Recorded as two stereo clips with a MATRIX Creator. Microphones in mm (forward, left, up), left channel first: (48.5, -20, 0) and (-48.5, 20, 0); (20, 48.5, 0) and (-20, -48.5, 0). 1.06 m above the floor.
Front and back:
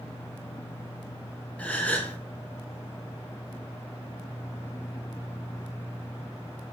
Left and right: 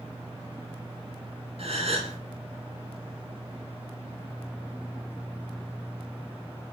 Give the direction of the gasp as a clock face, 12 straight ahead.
3 o'clock.